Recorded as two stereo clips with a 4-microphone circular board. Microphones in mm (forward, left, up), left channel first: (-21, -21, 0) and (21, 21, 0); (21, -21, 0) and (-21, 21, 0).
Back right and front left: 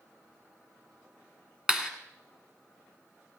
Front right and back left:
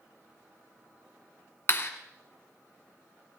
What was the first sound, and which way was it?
A clap, 25° right.